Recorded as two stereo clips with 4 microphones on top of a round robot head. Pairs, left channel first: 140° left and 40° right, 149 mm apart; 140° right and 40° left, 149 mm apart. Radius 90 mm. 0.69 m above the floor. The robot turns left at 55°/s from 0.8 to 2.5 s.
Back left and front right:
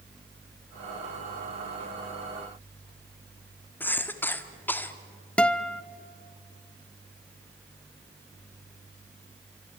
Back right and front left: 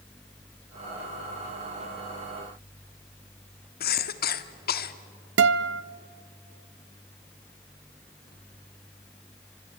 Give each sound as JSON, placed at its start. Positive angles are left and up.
{"t": 3.8, "sound": "a cough", "azimuth_deg": -140, "distance_m": 1.6}
{"t": 5.4, "sound": "a guitar", "azimuth_deg": 60, "distance_m": 0.5}